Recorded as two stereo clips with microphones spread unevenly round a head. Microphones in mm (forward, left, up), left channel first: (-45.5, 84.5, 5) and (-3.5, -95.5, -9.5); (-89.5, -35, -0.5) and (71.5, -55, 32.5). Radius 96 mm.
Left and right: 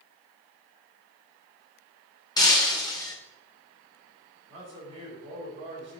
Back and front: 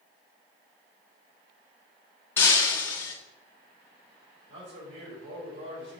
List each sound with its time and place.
2.4 s breaking glass: 85° left, 1.2 m
4.5 s a man speaking: 15° right, 3.5 m